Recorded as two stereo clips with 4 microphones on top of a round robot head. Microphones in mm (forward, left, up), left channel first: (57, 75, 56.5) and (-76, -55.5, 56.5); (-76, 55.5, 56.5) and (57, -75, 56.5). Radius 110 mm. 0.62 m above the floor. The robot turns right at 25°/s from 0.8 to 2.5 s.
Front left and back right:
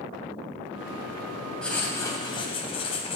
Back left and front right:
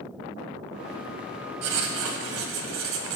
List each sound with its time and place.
1.6 s writing: 40° right, 1.0 m; by 3.2 s 20° right, 1.0 m